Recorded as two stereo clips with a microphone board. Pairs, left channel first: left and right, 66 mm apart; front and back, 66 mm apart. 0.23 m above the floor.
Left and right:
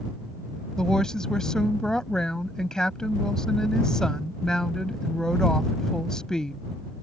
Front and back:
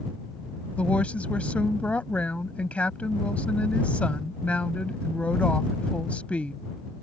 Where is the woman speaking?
30° left.